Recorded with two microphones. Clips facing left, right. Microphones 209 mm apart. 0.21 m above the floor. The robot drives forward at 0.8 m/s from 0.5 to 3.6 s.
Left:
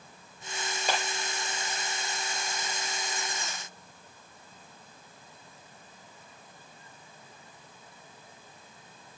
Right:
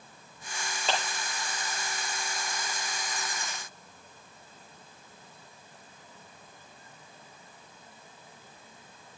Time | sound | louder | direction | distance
0.9 | a clap | even | 10° left (ahead or behind) | 4 m